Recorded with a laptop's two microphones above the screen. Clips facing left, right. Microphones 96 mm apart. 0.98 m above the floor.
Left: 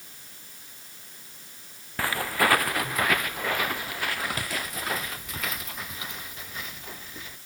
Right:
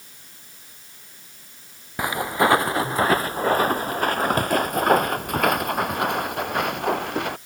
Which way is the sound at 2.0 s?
20° right (ahead or behind).